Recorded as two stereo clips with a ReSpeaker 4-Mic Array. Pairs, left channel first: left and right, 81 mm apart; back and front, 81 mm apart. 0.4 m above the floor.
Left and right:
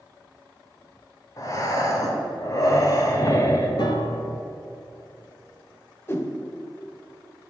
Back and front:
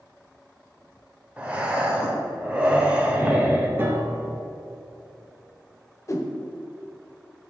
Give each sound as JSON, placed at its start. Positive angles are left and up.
{"t": 1.4, "sound": "breathing", "azimuth_deg": 70, "distance_m": 1.1}
{"t": 3.8, "sound": "a piano", "azimuth_deg": 65, "distance_m": 1.0}
{"t": 6.1, "sound": "a whoosh", "azimuth_deg": 140, "distance_m": 0.8}